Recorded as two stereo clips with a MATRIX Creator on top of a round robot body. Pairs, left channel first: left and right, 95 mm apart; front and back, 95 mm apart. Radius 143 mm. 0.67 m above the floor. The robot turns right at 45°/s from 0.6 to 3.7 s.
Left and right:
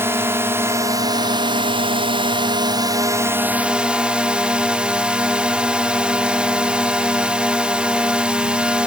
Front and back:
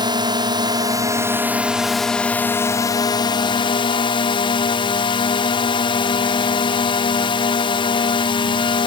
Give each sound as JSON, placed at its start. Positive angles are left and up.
{"t": 0.0, "sound": "a drone", "azimuth_deg": -150}